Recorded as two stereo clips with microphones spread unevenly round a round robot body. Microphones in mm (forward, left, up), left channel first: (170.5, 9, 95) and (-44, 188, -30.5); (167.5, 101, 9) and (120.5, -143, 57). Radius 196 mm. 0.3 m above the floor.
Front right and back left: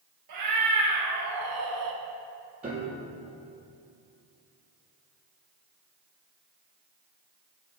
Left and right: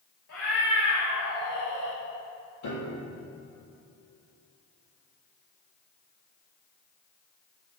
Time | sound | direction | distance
0.3 | a cat meowing | 140° left | 3.5 m
2.6 | a piano | 75° left | 3.5 m